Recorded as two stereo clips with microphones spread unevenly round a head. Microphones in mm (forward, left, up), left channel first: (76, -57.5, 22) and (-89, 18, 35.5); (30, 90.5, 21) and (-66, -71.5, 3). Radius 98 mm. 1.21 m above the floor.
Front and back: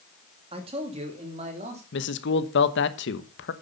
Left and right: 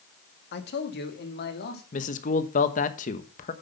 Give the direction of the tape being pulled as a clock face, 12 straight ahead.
No tape being pulled in this recording.